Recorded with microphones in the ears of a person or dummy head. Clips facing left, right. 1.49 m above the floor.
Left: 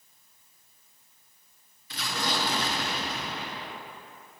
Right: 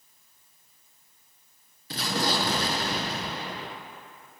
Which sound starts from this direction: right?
An explosion, at 1.9 s.